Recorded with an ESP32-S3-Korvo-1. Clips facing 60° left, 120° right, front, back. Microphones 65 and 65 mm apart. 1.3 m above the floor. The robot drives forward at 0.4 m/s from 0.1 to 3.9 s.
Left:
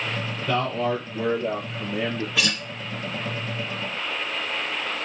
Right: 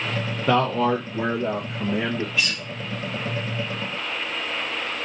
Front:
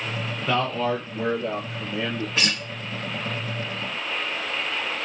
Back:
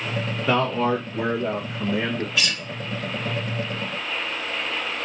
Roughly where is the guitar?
Ahead left.